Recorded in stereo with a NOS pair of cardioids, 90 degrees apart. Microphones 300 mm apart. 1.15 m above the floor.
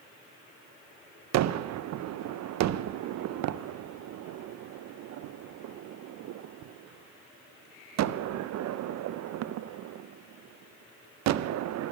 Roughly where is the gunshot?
Ahead right.